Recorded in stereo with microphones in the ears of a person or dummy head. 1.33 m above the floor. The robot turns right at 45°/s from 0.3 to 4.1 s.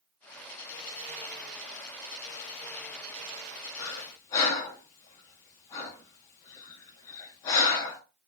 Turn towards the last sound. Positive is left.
turn(degrees=20)  # may be behind; listen again after turning